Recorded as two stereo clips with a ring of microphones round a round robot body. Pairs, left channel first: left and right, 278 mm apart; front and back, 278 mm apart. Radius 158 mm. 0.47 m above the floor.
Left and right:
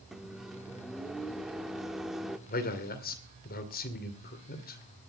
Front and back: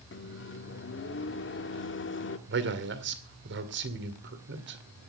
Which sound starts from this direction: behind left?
A man speaking, at 2.5 s.